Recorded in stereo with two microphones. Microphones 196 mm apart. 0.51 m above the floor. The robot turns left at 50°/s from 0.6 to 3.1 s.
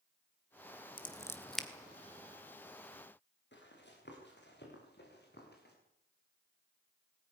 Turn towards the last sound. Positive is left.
turn(degrees=55)  # may be behind; listen again after turning